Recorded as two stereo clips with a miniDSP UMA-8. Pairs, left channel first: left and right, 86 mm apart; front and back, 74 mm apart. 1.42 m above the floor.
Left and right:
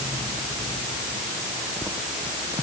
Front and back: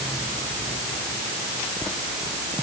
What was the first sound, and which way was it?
Only background noise.